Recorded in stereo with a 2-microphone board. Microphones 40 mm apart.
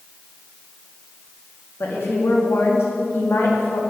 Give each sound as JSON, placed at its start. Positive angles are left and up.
{"t": 1.8, "sound": "a woman speaking", "side_deg": 85, "distance_m": 3.5}